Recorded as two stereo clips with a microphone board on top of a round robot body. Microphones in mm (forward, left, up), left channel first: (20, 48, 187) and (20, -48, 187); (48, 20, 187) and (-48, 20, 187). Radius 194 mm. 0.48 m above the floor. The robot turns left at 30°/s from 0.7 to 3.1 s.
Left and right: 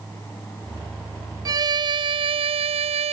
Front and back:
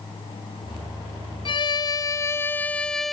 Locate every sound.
1.4 s a violin: 40° right; by 3.1 s 90° right